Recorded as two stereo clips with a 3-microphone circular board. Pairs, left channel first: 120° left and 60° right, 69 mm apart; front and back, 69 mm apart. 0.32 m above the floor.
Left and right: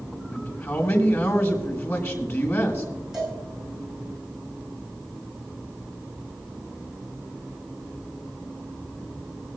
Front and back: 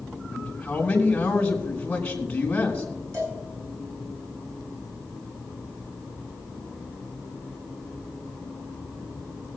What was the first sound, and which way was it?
A man speaking, 70° left.